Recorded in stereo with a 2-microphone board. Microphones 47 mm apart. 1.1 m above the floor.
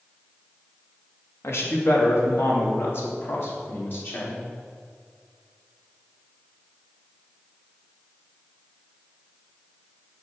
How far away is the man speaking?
About 1.9 m.